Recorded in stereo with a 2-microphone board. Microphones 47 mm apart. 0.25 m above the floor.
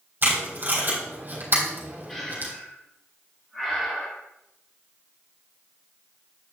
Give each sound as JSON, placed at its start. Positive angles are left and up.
{"t": 0.2, "sound": "tape being pulled", "side_deg": -40, "distance_m": 3.5}
{"t": 2.1, "sound": "breathing", "side_deg": 10, "distance_m": 4.5}